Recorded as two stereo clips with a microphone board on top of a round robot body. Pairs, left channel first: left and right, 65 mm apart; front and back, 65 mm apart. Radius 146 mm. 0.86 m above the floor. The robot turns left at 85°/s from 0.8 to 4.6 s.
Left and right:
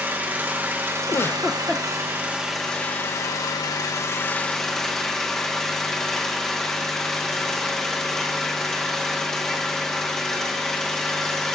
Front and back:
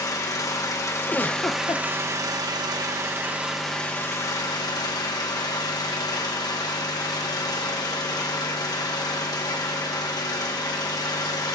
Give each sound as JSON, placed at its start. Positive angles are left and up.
{"t": 0.0, "sound": "an engine running", "azimuth_deg": -30, "distance_m": 1.3}
{"t": 1.1, "sound": "a giggle", "azimuth_deg": 60, "distance_m": 0.7}